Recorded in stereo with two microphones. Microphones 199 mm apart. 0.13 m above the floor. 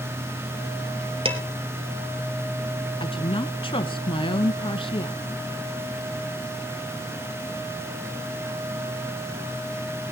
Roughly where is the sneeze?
I don't hear a sneeze.